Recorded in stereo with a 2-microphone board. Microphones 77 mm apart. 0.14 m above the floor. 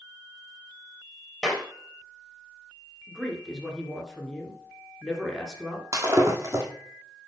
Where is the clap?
Centre (ahead or behind), 3 m.